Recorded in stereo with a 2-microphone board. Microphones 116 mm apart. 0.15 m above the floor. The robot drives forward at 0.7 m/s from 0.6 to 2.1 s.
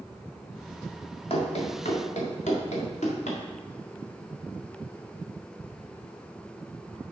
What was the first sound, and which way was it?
Running footsteps, 55° left (ahead or behind).